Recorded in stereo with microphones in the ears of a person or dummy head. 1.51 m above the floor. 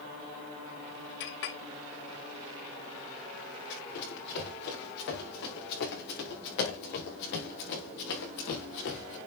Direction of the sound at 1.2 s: 65° left (ahead or behind).